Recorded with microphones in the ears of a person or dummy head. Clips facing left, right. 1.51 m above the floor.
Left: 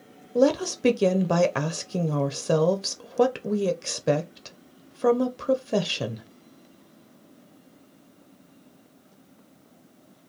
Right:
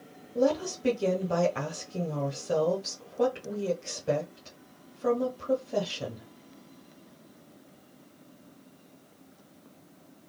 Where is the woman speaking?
75° left (ahead or behind), 0.7 m.